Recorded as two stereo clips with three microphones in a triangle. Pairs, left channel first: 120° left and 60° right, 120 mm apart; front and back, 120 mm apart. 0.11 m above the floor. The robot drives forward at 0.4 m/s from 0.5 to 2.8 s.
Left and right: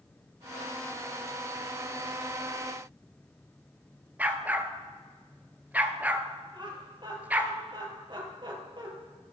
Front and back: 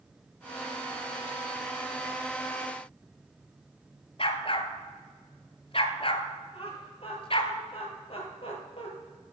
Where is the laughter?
20° right, 3 m.